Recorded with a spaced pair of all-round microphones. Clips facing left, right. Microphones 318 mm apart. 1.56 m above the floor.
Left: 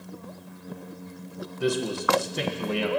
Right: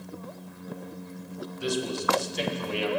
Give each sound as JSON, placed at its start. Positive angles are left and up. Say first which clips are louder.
{"t": 1.6, "sound": "a man speaking", "louder": "left 3 dB", "side_deg": 65, "distance_m": 1.5}